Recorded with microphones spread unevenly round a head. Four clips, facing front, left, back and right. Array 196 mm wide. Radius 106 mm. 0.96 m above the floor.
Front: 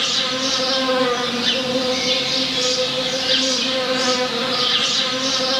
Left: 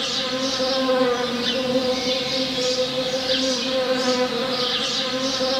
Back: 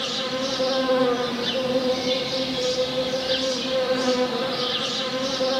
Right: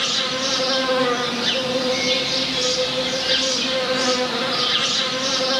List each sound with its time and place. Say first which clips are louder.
0.0 s an insect: even, front 2 dB; 120° right, 1.6 m